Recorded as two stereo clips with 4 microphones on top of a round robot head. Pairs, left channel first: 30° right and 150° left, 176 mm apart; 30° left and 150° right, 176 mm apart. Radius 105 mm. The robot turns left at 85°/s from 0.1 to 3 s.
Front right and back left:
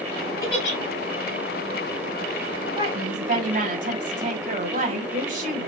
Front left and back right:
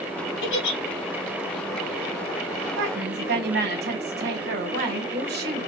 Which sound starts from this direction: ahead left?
A giggle, at 0.4 s.